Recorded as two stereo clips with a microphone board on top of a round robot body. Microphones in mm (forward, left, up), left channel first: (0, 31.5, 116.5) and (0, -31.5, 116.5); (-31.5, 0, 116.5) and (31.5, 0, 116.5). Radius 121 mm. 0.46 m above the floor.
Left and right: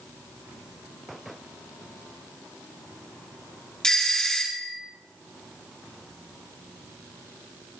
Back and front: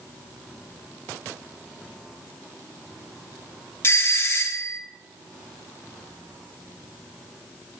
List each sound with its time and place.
3.8 s a doorbell: 165° left, 1.6 m